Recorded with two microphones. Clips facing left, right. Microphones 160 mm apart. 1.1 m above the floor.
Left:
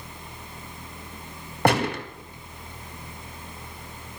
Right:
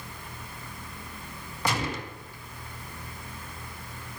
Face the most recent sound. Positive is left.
turn(degrees=60)  # may be behind; listen again after turning